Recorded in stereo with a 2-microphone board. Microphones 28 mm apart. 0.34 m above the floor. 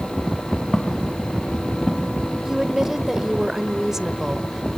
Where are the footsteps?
20° left (ahead or behind), 3 m; by 2.1 s 40° left (ahead or behind), 3.5 m.